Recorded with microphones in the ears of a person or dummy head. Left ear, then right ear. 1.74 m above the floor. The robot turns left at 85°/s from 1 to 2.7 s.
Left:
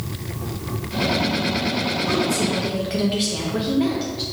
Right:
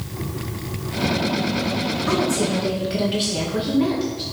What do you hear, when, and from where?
2.1 s a woman speaking: 130° right, 2.0 m; by 4.2 s straight behind, 2.0 m